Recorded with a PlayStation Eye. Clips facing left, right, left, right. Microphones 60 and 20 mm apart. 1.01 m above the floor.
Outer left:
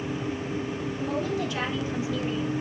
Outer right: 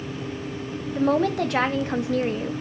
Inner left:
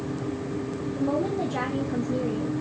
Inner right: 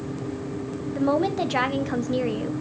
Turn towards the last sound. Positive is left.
turn(degrees=-45)  # may be behind; listen again after turning